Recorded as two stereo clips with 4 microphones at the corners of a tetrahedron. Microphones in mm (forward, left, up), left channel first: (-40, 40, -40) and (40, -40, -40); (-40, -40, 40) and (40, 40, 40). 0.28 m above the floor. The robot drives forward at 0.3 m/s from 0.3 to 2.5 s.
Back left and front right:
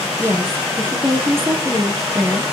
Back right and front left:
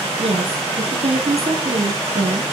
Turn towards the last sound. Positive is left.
turn(degrees=25)